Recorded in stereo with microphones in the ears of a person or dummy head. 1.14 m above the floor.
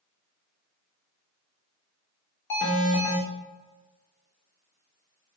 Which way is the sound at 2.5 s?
15° left (ahead or behind).